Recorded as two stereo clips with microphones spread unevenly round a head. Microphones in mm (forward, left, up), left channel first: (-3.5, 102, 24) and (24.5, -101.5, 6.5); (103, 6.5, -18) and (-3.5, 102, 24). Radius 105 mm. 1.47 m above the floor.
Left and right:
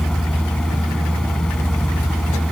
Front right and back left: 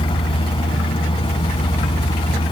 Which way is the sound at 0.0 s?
10° left.